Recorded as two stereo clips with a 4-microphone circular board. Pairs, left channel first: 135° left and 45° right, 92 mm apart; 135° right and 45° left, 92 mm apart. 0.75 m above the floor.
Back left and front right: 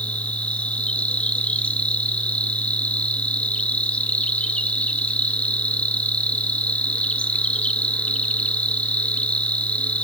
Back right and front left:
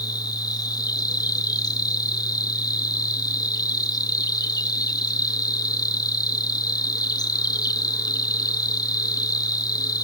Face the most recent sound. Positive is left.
turn(degrees=-155)